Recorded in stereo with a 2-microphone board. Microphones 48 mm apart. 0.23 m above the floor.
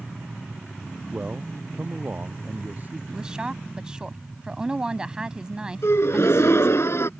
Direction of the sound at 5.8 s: 65° left (ahead or behind).